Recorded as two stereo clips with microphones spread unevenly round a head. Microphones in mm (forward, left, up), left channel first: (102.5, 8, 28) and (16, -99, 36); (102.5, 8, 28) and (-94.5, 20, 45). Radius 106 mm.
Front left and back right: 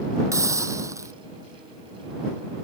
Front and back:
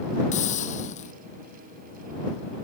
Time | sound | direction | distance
0.3 | a hiss | 60° right | ?